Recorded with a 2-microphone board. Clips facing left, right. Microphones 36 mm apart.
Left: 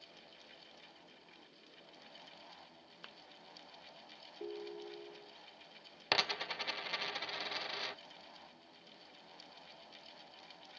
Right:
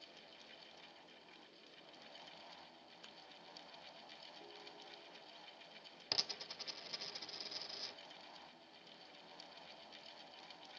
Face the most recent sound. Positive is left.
turn(degrees=50)  # may be behind; listen again after turning